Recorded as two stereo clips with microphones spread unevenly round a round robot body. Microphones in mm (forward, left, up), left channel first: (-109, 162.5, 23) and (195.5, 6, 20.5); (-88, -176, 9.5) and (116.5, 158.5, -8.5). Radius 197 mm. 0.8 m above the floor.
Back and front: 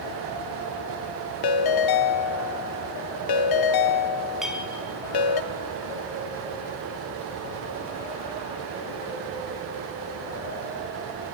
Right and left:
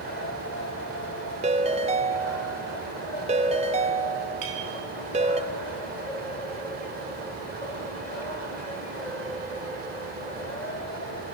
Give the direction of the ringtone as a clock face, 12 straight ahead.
8 o'clock.